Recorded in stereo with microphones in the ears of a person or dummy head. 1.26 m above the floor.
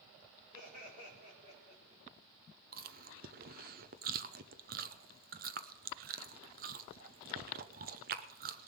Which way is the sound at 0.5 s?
50° right (ahead or behind).